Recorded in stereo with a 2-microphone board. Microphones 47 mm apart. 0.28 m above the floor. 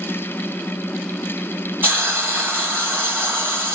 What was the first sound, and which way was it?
A hiss, 45° right (ahead or behind).